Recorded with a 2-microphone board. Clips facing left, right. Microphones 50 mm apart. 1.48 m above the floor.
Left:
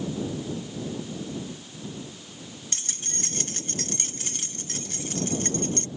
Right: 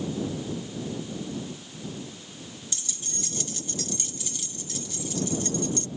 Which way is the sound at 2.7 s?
50° left (ahead or behind).